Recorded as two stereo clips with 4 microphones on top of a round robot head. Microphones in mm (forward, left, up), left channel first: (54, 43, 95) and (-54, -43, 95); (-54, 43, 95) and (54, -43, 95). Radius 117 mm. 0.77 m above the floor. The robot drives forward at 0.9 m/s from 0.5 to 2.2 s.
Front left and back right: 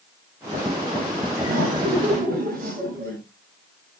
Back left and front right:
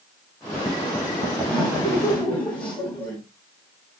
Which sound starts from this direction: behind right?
Laughter, at 1.4 s.